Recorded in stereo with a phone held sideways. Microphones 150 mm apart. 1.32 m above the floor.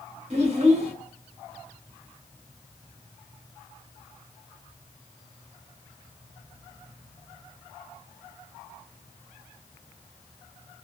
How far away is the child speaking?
About 1.3 m.